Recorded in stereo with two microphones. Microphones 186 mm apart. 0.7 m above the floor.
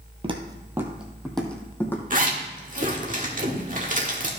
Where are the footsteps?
30° right (ahead or behind), 1.1 m; by 2.0 s 10° left (ahead or behind), 2 m.